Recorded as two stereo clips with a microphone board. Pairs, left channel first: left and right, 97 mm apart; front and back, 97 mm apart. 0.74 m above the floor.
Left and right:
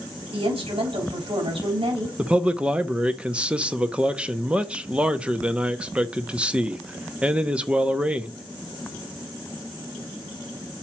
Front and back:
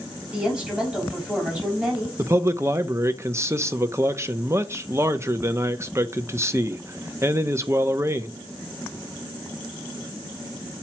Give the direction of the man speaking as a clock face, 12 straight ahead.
5 o'clock.